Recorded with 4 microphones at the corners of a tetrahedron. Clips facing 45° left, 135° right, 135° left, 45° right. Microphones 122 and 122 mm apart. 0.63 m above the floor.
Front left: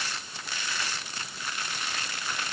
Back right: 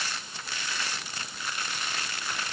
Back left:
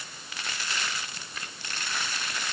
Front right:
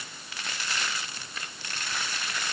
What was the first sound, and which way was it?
Only background noise.